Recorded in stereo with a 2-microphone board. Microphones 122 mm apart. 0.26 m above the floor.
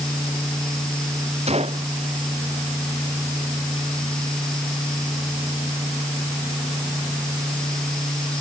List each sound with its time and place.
1.5 s a gunshot: 55° right (ahead or behind)